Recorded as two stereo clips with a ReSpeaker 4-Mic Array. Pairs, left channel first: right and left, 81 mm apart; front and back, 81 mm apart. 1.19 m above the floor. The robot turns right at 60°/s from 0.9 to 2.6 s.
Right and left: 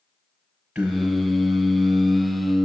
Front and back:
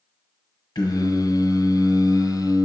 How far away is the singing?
About 1.2 m.